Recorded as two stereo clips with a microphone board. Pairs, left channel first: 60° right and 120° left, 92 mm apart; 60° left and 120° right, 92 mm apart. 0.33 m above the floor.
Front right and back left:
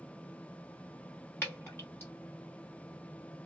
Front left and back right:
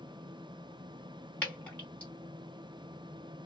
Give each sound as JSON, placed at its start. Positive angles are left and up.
{"t": 1.4, "sound": "dripping", "azimuth_deg": -5, "distance_m": 1.9}